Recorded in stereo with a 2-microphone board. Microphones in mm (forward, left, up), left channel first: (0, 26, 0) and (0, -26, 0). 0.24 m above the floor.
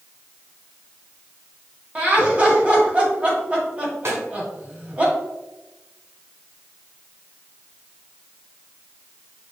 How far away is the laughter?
About 1.6 m.